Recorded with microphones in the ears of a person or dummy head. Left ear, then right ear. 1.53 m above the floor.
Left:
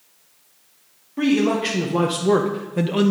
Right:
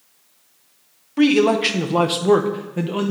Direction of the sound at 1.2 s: 50° right (ahead or behind).